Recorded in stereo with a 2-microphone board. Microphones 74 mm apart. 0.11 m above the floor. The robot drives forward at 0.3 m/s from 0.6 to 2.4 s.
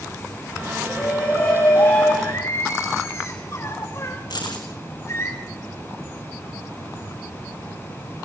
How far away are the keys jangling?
About 5.5 m.